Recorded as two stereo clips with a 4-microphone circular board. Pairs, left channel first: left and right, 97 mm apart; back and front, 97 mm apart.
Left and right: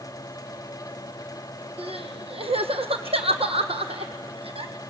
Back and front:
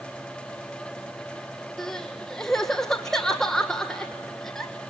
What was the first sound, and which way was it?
Crying, 95° right.